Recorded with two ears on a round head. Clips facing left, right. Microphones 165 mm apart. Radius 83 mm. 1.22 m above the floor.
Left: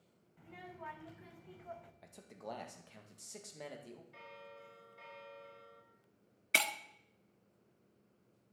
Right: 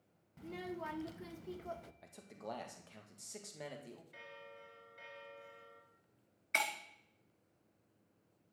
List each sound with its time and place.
0.4 s a child speaking: 55° right (ahead or behind), 0.9 m
2.0 s a man speaking: centre (ahead or behind), 1.9 m
4.1 s a bell: 15° right (ahead or behind), 3 m
6.5 s breaking glass: 40° left (ahead or behind), 1.1 m